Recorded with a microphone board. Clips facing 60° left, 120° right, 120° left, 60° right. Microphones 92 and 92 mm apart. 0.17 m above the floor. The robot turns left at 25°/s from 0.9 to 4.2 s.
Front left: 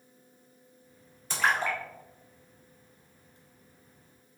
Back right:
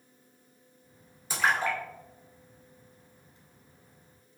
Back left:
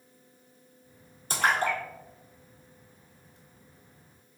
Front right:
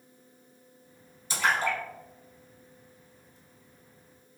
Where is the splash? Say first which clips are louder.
Even, back left 1 dB; 160° left, 1.3 m; by 3.4 s 110° left, 1.3 m.